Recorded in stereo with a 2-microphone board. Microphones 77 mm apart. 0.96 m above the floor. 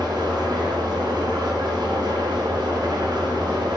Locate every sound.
0.0 s an engine running: 75° right (ahead or behind), 1.8 m